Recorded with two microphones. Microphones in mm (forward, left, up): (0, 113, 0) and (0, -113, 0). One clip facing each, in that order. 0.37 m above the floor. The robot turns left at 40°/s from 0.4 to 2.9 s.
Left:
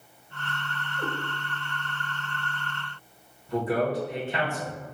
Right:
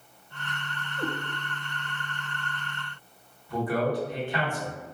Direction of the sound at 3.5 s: 25° left (ahead or behind).